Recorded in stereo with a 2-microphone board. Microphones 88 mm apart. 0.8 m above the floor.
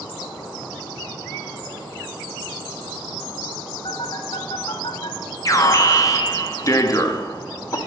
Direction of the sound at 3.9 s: 60° left (ahead or behind).